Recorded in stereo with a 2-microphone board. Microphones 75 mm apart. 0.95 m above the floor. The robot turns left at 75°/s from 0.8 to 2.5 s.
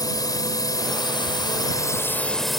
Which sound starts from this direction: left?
A drone, at 0.0 s.